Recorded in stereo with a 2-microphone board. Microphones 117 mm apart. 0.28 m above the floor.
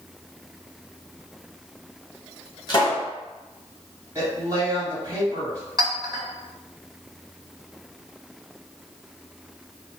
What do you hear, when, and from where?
2.7 s a pop: 35° left (ahead or behind), 1.5 m
4.2 s a woman speaking: 25° right (ahead or behind), 1.8 m
5.8 s a clink: 35° right (ahead or behind), 1.2 m